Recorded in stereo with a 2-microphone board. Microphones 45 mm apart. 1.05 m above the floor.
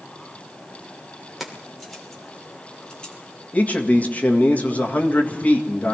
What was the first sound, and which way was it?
Keys jangling, 5° right (ahead or behind).